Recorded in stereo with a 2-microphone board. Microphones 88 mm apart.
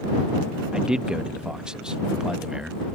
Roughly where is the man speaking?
Centre.